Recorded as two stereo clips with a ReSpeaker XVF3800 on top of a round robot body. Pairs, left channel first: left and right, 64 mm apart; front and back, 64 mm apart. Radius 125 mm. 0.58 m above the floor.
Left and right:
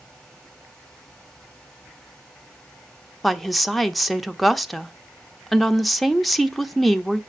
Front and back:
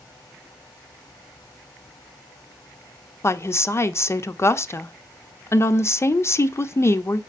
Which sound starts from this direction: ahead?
A woman speaking, at 3.2 s.